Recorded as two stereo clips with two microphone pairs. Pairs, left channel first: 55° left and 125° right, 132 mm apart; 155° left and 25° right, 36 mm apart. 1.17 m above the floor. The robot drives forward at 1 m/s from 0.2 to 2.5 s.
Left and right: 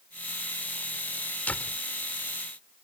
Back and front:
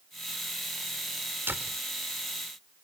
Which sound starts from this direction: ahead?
A door slam, at 1.5 s.